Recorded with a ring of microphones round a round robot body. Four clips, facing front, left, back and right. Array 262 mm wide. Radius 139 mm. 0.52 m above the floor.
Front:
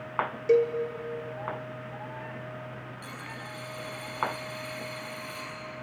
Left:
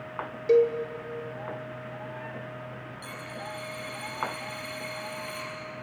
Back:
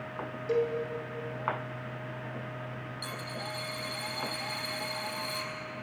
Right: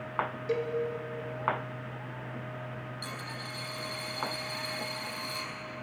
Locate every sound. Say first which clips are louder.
0.5 s a cowbell: left 13 dB, front 6 dB; 40° left, 1.6 m
3.0 s a dropped coin: left 2 dB, back 2 dB; 135° right, 5 m